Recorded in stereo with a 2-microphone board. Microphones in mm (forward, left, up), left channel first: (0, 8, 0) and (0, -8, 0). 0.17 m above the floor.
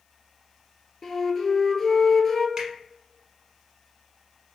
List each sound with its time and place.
1.0 s a flute: 20° left (ahead or behind), 0.5 m
2.6 s a finger snap: 40° right (ahead or behind), 1.1 m